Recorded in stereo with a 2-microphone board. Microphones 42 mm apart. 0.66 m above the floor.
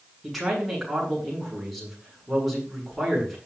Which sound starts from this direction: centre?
A man speaking, at 0.2 s.